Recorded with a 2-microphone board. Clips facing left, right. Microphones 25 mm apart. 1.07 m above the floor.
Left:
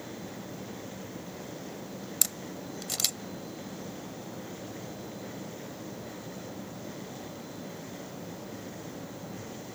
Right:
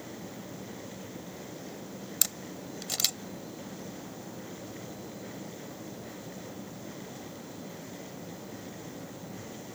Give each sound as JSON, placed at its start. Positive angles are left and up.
{"t": 2.2, "sound": "a camera shutter", "side_deg": -5}